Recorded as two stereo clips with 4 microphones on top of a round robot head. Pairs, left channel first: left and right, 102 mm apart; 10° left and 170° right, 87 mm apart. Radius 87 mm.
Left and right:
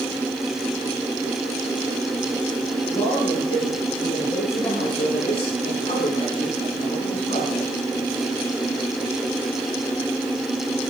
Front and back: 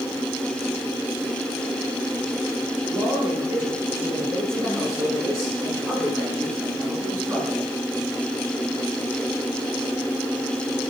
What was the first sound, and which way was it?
A man speaking, 145° left.